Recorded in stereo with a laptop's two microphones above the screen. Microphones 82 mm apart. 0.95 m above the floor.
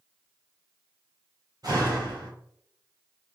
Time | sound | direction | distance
1.6 | a door slam | 50° right (ahead or behind) | 1.6 m